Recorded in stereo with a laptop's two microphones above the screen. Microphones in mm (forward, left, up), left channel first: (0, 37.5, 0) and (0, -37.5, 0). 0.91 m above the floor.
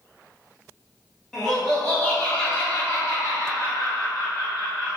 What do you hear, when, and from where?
1.3 s laughter: 5° left (ahead or behind), 1.5 m; by 5.0 s 70° left (ahead or behind), 1.8 m